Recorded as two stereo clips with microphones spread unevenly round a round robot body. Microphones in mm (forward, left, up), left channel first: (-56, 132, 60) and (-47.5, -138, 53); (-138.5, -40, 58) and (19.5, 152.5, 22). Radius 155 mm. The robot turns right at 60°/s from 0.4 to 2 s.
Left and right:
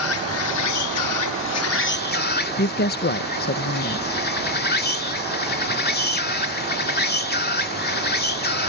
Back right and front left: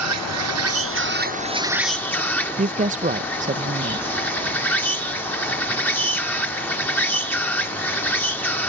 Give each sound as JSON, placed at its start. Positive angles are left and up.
{"t": 0.0, "sound": "an insect", "azimuth_deg": 50}
{"t": 2.6, "sound": "a woman speaking", "azimuth_deg": 65}